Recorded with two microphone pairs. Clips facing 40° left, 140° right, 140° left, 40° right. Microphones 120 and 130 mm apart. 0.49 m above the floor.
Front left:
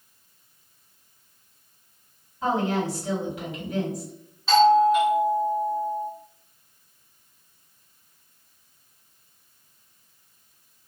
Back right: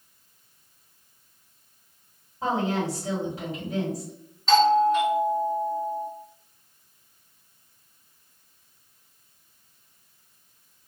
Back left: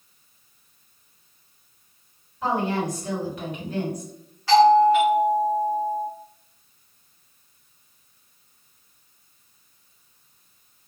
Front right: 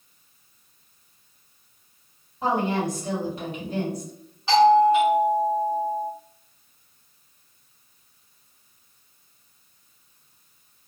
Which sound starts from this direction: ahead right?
A doorbell, at 4.5 s.